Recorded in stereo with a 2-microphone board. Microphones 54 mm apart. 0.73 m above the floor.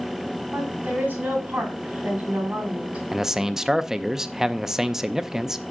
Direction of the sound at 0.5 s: 35° right (ahead or behind).